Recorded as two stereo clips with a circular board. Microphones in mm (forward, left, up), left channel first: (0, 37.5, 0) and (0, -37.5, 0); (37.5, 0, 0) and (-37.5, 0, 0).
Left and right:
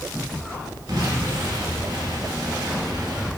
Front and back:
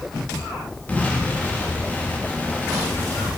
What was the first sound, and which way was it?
An explosion, 65° right.